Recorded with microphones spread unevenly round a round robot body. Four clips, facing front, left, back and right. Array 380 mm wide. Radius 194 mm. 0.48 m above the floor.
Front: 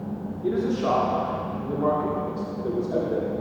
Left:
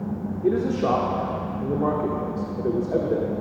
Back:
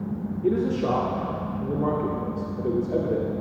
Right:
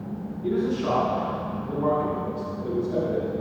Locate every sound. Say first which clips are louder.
0.4 s a man speaking: left 3 dB, even; 115° left, 1.1 m